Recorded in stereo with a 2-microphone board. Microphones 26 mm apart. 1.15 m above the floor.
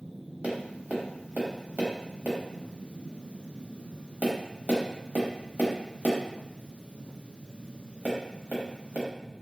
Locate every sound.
0.4 s tapping: 60° right (ahead or behind), 0.9 m